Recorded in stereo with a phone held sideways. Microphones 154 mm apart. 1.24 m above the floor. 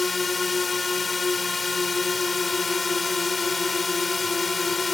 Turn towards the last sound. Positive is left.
turn(degrees=0)  # may be behind; listen again after turning